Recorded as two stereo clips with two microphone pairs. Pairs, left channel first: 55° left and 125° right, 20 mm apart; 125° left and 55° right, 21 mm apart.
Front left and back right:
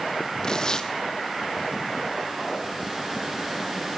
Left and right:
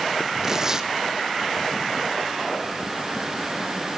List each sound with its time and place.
0.4 s tearing paper: 10° left, 1.3 m